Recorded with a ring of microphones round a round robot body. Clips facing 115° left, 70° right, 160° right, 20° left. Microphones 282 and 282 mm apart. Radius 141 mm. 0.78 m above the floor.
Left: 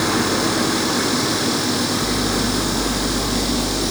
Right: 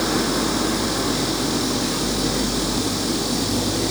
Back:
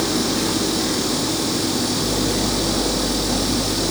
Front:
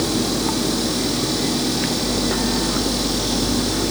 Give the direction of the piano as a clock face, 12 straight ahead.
No piano in this recording.